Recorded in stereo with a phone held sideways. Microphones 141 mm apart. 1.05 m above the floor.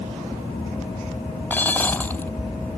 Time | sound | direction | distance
1.5 | dishes clattering | 15° left (ahead or behind) | ?